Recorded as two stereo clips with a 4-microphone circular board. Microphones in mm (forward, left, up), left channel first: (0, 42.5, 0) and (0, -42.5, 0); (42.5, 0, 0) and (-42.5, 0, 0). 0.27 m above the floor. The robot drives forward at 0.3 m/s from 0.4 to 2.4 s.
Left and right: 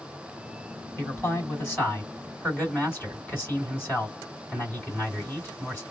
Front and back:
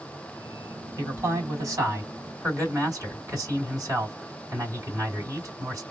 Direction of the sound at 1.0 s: 140° left.